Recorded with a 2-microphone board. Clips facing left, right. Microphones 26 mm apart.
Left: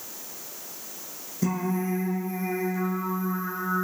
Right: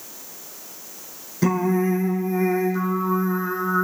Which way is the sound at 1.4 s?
45° right (ahead or behind).